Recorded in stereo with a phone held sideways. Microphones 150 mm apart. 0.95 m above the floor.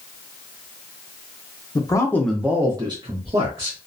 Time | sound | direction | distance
1.8 | a man speaking | 25° left (ahead or behind) | 0.7 m